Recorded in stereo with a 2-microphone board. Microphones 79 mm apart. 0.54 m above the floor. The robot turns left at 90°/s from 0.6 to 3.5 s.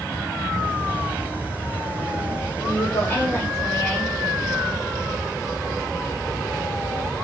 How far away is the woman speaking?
About 2 m.